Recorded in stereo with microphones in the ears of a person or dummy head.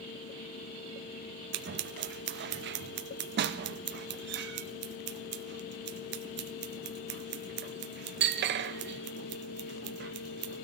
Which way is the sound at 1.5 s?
50° right (ahead or behind).